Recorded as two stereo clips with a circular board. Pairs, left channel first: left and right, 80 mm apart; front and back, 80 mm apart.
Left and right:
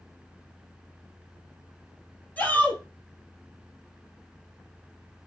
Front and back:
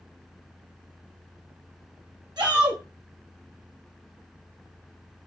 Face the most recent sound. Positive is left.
turn(degrees=160)